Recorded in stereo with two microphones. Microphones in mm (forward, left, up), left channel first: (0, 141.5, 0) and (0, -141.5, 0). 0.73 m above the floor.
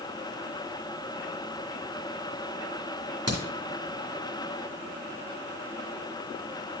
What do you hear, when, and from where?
3.3 s a crack: 60° right (ahead or behind), 2.5 m